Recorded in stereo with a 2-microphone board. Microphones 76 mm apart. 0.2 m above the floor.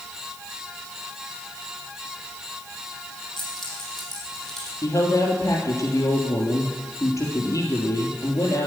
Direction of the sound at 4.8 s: 45° left (ahead or behind).